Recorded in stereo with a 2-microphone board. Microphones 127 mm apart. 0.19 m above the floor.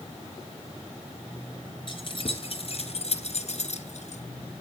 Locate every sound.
1.9 s keys jangling: 40° left (ahead or behind), 2 m; by 4.2 s 65° left (ahead or behind), 2.0 m